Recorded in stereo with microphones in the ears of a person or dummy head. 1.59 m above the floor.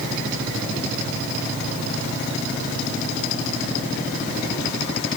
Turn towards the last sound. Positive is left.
No sound to turn to.